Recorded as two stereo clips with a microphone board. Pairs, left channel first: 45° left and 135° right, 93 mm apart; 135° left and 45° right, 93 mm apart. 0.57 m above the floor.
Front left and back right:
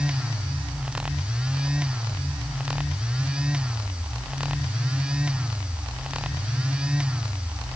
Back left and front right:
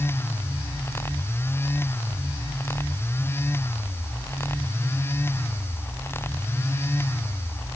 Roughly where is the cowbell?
No cowbell in this recording.